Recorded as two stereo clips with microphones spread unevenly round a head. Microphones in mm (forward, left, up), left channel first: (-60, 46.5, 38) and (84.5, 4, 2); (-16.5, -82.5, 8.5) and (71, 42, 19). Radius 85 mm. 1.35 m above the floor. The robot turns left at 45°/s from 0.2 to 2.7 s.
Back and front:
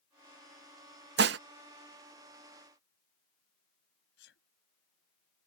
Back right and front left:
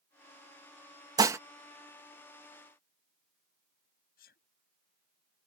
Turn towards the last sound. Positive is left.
turn(degrees=-165)